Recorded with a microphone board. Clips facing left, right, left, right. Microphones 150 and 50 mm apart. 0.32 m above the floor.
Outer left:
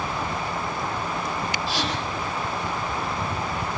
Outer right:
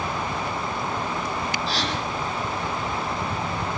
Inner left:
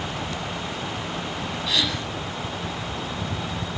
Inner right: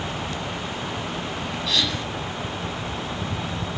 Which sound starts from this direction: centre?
A gasp, at 1.7 s.